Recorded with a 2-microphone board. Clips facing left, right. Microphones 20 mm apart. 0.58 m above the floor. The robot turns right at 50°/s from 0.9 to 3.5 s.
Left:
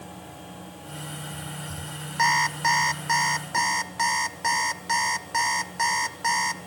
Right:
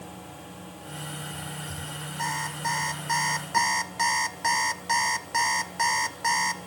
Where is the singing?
No singing in this recording.